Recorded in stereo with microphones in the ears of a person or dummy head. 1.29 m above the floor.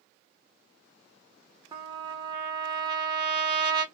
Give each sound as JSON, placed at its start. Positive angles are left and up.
{"t": 1.7, "sound": "a trumpet", "side_deg": -20, "distance_m": 0.5}